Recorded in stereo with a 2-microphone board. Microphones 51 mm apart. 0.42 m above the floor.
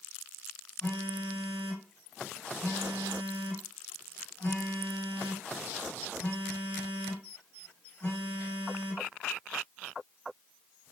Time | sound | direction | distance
0.8 | a phone buzzing | 45° left (ahead or behind) | 2.0 m